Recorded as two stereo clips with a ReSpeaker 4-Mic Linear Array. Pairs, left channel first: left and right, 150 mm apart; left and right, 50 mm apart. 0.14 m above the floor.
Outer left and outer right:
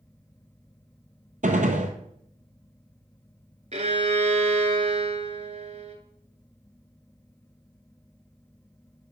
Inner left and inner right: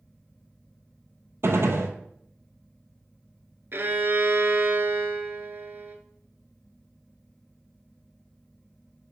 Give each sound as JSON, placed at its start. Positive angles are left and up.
{"t": 1.4, "sound": "a gunshot", "side_deg": -60, "distance_m": 0.9}
{"t": 3.7, "sound": "a violin", "side_deg": -50, "distance_m": 0.9}